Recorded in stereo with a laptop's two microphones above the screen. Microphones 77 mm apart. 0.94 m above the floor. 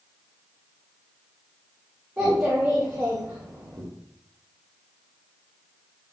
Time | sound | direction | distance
2.2 | a child speaking | 25° right (ahead or behind) | 0.9 m